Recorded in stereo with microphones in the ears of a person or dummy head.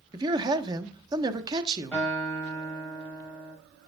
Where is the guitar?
Centre (ahead or behind), 5.5 m.